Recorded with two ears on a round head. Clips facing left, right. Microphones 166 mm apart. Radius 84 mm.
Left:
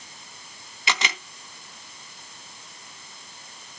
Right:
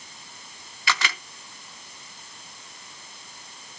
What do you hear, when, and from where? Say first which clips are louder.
0.9 s a camera shutter: even; 20° left (ahead or behind), 0.6 m